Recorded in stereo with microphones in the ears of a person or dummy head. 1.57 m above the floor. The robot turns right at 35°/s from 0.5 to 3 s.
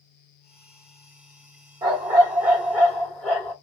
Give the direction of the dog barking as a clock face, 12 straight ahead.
1 o'clock.